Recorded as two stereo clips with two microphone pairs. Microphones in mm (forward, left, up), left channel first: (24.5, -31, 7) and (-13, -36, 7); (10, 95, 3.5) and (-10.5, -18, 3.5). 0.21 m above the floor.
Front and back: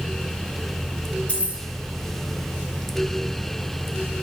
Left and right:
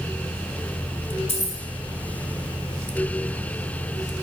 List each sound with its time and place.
1.3 s keys jangling: 55° left, 3 m